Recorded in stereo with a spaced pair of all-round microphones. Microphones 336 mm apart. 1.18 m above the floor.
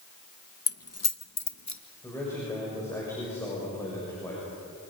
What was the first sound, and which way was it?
Keys jangling, 40° left (ahead or behind).